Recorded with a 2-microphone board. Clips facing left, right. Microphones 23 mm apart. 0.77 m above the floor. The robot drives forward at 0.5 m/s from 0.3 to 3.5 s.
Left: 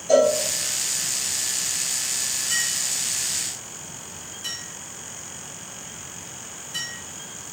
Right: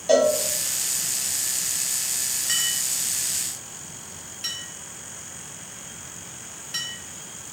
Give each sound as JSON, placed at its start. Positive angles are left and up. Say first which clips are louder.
{"t": 0.1, "sound": "a cowbell", "louder": "left 1 dB", "side_deg": -50, "distance_m": 1.2}
{"t": 2.5, "sound": "a clink", "louder": "right 1 dB", "side_deg": -75, "distance_m": 1.1}